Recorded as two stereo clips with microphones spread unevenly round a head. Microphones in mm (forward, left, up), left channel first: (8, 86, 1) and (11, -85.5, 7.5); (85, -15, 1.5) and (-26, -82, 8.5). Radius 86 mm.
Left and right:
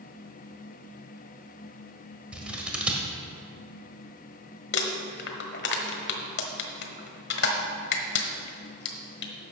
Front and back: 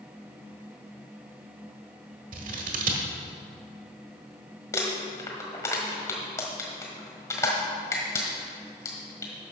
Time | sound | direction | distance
2.3 | scissors | 170° right | 1.4 m
4.7 | crumpling | 100° left | 1.3 m